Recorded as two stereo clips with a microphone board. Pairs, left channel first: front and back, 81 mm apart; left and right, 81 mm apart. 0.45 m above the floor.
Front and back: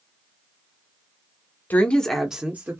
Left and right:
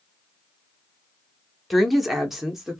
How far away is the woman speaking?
About 0.8 m.